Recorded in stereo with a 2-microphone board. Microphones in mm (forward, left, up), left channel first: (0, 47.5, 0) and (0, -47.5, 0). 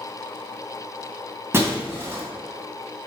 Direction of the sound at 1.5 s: 25° right (ahead or behind).